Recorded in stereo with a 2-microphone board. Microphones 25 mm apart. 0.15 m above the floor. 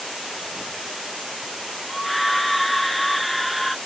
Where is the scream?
Centre (ahead or behind).